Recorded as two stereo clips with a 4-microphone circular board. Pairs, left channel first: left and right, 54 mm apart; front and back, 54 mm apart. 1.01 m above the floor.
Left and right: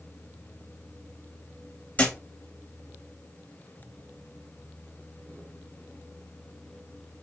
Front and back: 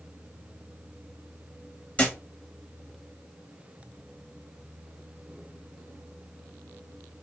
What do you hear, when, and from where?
2.0 s a thud: 50° left, 0.9 m